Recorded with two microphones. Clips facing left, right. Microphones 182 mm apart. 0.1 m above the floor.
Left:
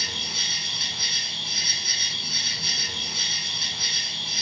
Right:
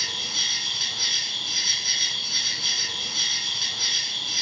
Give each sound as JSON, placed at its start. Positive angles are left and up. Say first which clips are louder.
{"t": 0.0, "sound": "an insect", "louder": "left 2 dB", "side_deg": 50, "distance_m": 1.3}